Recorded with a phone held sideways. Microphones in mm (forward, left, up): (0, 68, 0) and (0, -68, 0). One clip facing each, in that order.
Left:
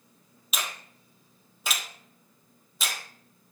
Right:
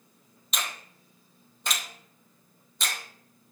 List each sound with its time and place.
0.5 s a finger snap: 5° left (ahead or behind), 0.6 m